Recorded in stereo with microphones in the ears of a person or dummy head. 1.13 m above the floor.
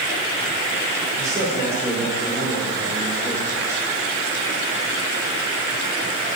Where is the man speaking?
10° right (ahead or behind), 4.5 m.